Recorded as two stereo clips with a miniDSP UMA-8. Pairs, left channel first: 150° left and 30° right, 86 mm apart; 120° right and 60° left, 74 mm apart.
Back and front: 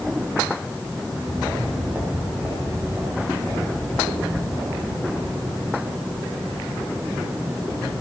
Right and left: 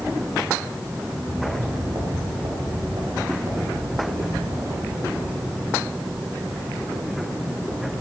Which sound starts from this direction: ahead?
Footsteps, at 1.0 s.